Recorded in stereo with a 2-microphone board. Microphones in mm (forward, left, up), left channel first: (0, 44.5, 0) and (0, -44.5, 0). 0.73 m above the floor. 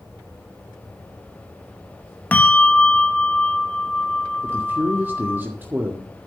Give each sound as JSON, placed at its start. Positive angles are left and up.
{"t": 2.3, "sound": "a bell", "side_deg": 20, "distance_m": 1.1}
{"t": 4.4, "sound": "a man speaking", "side_deg": -20, "distance_m": 1.8}